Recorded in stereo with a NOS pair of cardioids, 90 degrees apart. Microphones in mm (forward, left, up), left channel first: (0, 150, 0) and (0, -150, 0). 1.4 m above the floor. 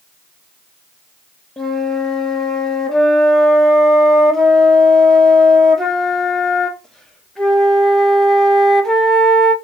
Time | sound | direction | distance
1.6 | a flute | straight ahead | 0.5 m